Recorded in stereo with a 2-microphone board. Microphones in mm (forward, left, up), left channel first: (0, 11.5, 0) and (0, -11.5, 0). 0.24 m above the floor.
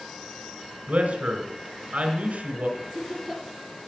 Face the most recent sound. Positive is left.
turn(degrees=10)  # may be behind; listen again after turning